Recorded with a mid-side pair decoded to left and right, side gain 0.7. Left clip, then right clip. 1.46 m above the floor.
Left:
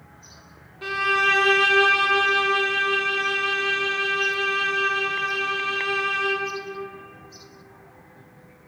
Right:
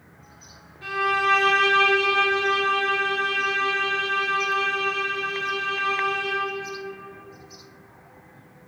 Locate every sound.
0.8 s a violin: 30° left, 1.6 m